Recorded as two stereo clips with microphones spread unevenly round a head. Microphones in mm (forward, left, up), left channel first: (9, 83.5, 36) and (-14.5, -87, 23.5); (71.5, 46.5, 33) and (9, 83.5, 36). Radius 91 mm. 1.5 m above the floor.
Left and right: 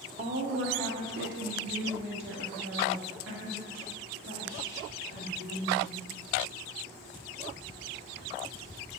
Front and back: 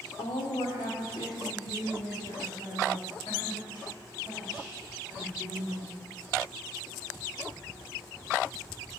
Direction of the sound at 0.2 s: 45° right.